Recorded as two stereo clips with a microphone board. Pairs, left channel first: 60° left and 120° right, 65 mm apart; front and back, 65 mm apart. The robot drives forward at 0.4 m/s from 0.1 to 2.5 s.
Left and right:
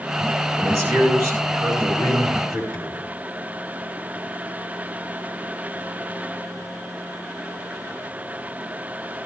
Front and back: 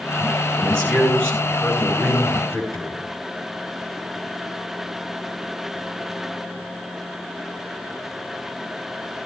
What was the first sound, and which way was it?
A man speaking, 75° right.